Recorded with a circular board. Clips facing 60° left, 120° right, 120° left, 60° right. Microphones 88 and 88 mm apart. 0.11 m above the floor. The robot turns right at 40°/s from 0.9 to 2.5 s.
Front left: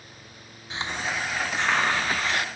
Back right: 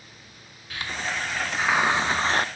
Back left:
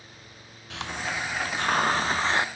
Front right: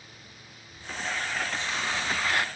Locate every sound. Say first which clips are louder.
0.7 s a hiss: front left 1 dB, back left 2 dB; 125° left; by 2.5 s 170° right